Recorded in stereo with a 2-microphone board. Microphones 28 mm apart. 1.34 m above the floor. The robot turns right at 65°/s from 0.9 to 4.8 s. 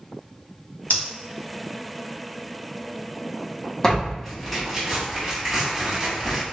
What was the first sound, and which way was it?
Breathing, 80° left.